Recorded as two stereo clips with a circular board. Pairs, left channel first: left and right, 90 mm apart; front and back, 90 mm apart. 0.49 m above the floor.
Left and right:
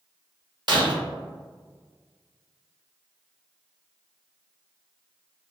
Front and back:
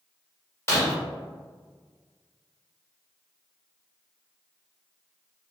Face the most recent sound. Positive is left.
turn(degrees=-60)